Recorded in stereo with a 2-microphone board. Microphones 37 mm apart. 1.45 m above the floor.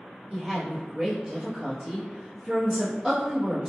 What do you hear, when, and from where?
0.3 s a woman speaking: 10° right (ahead or behind), 1.1 m